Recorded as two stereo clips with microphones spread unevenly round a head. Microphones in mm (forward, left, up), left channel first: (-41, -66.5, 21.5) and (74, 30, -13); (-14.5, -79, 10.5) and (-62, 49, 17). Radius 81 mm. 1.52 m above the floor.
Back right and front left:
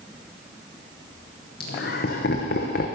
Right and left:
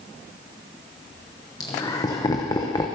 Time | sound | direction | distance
1.6 | laughter | 135° right | 0.9 m